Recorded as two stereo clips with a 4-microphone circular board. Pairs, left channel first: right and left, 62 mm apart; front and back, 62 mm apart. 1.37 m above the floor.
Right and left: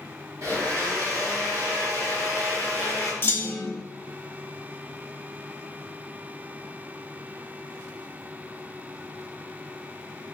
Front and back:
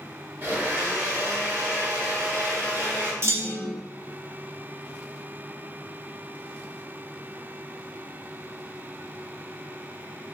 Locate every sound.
0.4 s a blender: 125° left, 1.6 m
3.2 s a clunk: 145° right, 0.7 m